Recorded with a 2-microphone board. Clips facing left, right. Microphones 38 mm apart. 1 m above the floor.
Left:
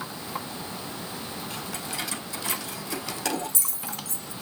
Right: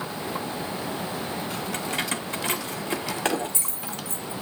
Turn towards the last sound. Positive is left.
turn(degrees=-25)  # may be behind; listen again after turning